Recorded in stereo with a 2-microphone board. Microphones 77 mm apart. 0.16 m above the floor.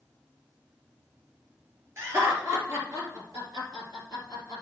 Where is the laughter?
30° right (ahead or behind), 3 m; by 4.6 s 45° right (ahead or behind), 4 m.